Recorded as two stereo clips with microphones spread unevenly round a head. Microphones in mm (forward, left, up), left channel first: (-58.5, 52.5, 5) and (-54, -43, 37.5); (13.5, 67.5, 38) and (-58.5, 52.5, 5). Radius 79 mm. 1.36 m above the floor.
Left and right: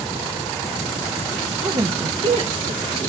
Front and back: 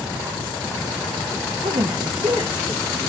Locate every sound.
1.6 s a woman speaking: 130° right, 0.5 m; by 3.0 s 95° right, 1.1 m